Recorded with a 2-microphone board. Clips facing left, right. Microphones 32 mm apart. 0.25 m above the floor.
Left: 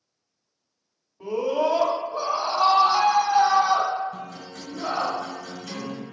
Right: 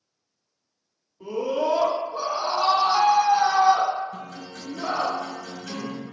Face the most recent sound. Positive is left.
turn(degrees=-35)  # may be behind; listen again after turning